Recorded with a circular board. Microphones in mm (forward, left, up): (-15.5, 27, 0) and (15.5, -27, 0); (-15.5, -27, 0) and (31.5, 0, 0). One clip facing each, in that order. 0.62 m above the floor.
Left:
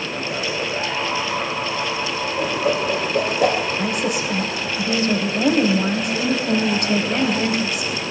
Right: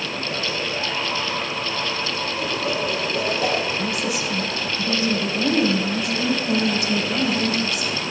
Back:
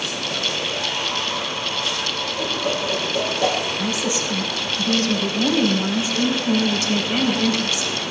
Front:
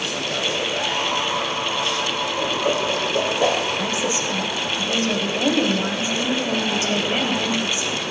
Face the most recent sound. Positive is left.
turn(degrees=90)